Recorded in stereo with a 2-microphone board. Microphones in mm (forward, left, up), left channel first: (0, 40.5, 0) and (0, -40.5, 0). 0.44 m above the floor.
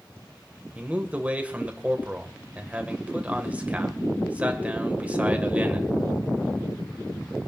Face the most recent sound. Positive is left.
turn(degrees=-20)  # may be behind; listen again after turning